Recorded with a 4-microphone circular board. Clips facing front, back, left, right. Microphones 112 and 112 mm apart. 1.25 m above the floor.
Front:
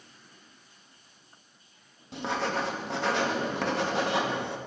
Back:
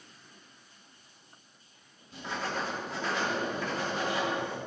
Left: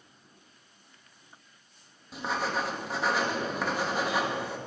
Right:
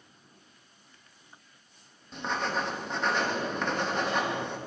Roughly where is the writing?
Ahead.